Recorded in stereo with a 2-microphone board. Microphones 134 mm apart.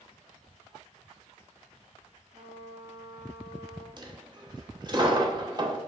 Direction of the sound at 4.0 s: 35° right (ahead or behind).